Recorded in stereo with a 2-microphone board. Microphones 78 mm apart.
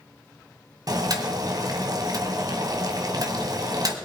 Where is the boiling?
50° right (ahead or behind), 1.8 m.